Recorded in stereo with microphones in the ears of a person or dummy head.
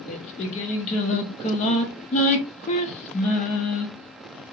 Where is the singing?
40° left (ahead or behind), 0.6 m.